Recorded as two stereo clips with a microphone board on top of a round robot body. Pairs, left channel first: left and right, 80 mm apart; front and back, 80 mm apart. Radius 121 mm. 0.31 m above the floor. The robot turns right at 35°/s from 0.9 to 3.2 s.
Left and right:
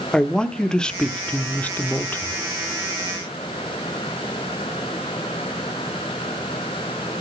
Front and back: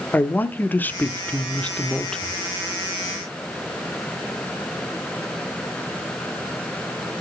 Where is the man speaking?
25° left, 0.9 m; by 2.4 s 75° left, 0.9 m.